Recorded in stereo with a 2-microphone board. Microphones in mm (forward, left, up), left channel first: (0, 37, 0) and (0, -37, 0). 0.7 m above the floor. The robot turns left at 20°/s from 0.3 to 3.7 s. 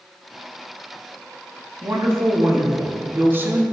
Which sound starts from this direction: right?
A woman speaking, at 1.8 s.